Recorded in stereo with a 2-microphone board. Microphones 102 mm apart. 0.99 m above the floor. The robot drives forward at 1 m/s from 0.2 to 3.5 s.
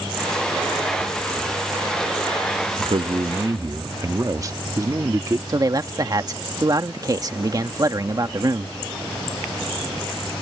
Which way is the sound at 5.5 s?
40° right (ahead or behind).